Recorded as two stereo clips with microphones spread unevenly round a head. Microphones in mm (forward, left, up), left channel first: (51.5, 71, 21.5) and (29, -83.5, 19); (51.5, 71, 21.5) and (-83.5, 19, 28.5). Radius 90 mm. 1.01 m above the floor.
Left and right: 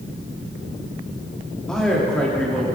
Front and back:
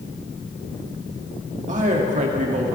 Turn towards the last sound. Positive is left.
turn(degrees=165)